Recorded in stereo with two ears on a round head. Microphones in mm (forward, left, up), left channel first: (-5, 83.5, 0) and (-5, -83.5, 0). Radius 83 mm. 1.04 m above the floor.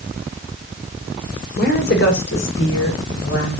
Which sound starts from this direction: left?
A woman speaking, at 1.6 s.